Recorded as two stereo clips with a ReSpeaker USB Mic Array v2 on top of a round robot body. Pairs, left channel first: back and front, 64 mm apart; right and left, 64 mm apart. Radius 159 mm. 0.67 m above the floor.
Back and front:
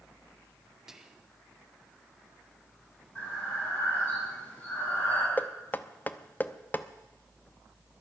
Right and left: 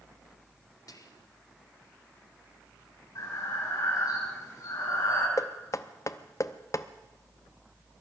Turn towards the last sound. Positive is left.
turn(degrees=-120)